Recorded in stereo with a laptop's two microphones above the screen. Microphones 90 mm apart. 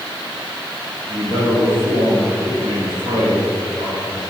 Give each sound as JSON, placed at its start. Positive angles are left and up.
{"t": 1.1, "sound": "a man speaking", "side_deg": -65, "distance_m": 1.6}